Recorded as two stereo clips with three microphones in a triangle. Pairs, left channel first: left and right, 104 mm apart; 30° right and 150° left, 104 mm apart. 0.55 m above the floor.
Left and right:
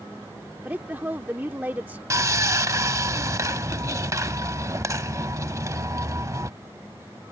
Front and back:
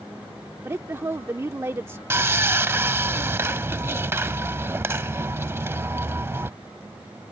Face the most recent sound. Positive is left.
turn(degrees=-145)